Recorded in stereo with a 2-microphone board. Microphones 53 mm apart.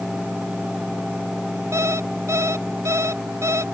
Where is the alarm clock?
65° right (ahead or behind).